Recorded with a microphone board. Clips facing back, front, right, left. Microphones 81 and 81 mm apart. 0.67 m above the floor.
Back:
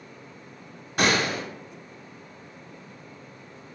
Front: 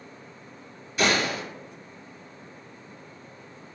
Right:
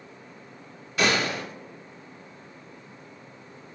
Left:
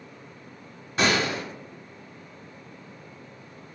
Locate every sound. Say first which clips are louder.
1.0 s a gunshot: back 1 dB, left 1 dB; 150° left, 1.5 m